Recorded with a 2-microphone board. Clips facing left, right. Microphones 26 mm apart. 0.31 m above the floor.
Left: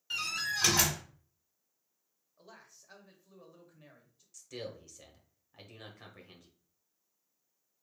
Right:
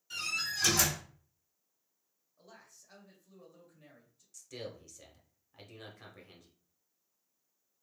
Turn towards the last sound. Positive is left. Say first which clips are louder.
# left 1 dB
turn(degrees=10)  # may be behind; listen again after turning